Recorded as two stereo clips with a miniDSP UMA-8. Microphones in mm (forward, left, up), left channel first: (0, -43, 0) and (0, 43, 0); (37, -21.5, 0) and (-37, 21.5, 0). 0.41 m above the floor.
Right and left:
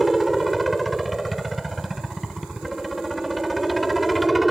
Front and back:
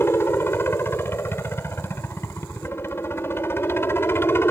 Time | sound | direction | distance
0.0 | a helicopter | straight ahead | ?